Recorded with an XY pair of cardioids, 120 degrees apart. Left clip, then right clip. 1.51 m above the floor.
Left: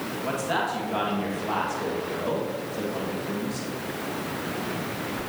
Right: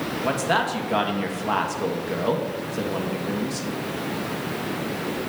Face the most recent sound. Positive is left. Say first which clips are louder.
# right 4 dB
turn(degrees=-40)